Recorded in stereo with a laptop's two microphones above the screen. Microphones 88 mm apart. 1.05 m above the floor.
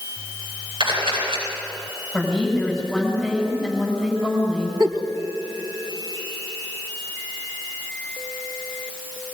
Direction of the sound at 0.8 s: 70° right (ahead or behind).